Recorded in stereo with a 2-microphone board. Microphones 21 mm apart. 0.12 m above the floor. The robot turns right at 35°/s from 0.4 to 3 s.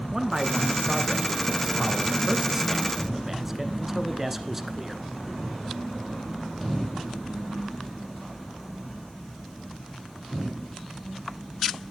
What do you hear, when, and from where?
0.1 s a man speaking: 15° right (ahead or behind), 1.3 m